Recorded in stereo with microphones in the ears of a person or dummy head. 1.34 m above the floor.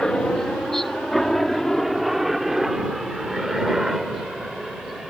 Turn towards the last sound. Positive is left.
turn(degrees=0)  # may be behind; listen again after turning